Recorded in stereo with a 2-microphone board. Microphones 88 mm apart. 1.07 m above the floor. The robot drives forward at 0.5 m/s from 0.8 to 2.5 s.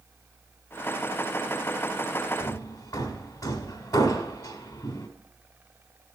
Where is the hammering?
45° left (ahead or behind), 1.5 m; by 5.1 s 40° left (ahead or behind), 1.6 m.